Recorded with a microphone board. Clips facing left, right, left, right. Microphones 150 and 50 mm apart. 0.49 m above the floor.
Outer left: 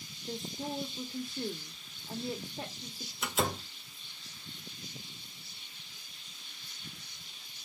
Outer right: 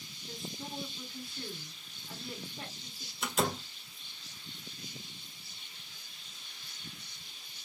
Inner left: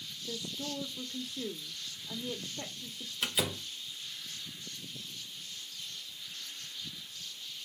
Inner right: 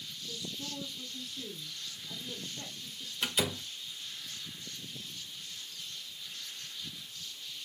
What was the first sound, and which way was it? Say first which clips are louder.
A woman speaking: outer left 5 dB, inner left 3 dB; 40° left (ahead or behind).